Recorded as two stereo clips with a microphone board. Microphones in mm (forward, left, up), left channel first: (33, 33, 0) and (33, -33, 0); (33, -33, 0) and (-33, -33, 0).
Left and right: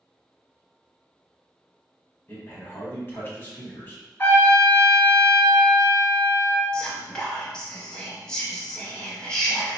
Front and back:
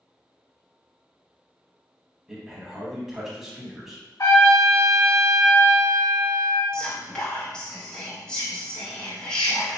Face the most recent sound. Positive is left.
turn(degrees=40)